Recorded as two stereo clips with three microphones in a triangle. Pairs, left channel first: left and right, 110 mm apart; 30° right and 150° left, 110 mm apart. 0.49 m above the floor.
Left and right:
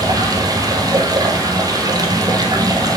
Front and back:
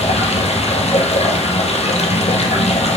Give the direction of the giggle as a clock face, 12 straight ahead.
No giggle in this recording.